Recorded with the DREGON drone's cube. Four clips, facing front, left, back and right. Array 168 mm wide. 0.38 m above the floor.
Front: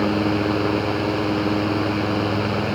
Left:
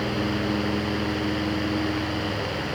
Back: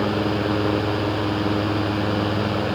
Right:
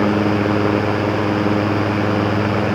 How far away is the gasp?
I don't hear a gasp.